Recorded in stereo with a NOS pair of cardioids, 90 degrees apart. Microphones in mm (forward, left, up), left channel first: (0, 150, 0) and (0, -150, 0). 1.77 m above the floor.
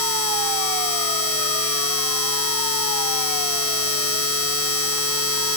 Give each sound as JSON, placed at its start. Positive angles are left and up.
{"t": 0.0, "sound": "a machine running", "azimuth_deg": 45}